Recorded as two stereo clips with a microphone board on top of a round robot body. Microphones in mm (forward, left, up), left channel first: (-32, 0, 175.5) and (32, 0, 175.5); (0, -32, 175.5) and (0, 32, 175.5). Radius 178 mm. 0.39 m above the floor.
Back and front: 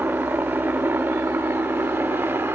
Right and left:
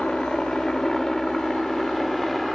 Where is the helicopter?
15° right; by 2.6 s straight ahead.